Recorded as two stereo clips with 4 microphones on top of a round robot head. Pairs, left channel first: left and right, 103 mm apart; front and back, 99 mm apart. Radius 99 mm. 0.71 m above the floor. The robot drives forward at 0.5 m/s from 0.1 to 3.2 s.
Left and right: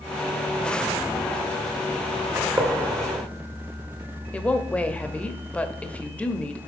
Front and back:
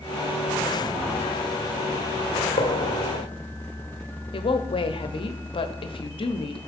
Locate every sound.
2.4 s a gunshot: 25° right, 1.3 m; by 3.2 s 35° right, 0.9 m
4.3 s a woman speaking: 15° left, 0.9 m